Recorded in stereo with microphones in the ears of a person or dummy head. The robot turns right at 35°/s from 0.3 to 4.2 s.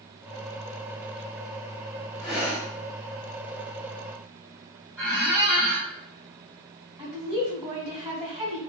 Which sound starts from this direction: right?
A woman speaking, at 7.0 s.